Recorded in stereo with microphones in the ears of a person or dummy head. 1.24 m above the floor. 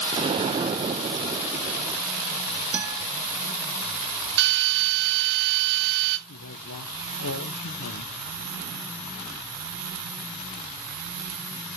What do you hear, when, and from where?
0.1 s an explosion: 30° right (ahead or behind), 0.6 m
2.7 s a guitar: 10° right (ahead or behind), 1.8 m
4.4 s a drill: 60° right (ahead or behind), 1.9 m
6.3 s a man speaking: 85° left, 0.9 m